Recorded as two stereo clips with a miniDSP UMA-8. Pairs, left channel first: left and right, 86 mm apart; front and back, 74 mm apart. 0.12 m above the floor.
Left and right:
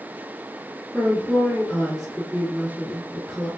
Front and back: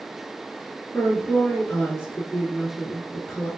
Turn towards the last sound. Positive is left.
turn(degrees=5)